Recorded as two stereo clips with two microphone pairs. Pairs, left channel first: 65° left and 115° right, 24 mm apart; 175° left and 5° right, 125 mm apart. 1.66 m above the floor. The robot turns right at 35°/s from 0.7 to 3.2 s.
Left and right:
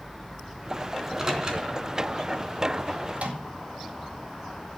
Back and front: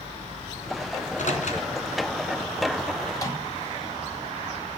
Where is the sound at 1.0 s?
170° left, 3.5 m; by 1.7 s 165° right, 3.5 m.